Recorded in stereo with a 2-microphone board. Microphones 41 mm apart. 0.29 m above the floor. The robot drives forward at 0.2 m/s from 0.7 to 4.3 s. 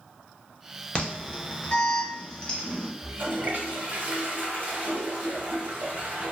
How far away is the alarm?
About 0.6 m.